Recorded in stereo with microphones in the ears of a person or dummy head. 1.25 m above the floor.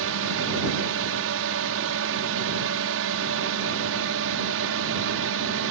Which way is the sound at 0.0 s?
65° right (ahead or behind).